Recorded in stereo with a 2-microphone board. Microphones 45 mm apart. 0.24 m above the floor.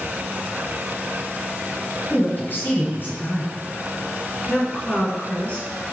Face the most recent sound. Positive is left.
turn(degrees=25)  # may be behind; listen again after turning